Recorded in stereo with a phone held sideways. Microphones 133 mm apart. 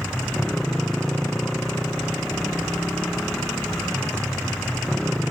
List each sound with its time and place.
0.0 s a motorcycle: 5° left (ahead or behind)